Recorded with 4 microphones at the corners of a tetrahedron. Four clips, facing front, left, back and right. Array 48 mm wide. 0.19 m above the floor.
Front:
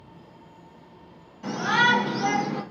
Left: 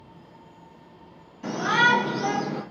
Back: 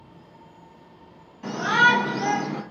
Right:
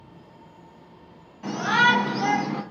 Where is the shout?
135° right, 1.4 m; by 2.6 s 115° right, 1.7 m.